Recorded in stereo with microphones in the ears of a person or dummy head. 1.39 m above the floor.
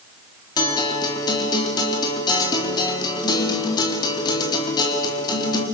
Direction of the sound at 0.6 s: 20° left (ahead or behind).